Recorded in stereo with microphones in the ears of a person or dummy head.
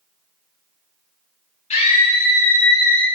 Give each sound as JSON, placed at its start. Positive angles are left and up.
{"t": 1.7, "sound": "a scream", "side_deg": 35, "distance_m": 0.9}